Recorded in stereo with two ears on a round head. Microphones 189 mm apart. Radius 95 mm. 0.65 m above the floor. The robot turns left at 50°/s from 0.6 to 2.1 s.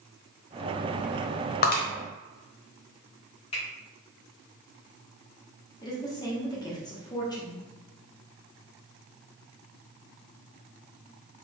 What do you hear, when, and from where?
1.6 s breaking glass: 45° left (ahead or behind), 1.0 m; by 1.8 s 35° left (ahead or behind), 1.0 m
3.5 s a finger snap: 25° left (ahead or behind), 1.9 m
5.8 s a woman speaking: 20° left (ahead or behind), 1.0 m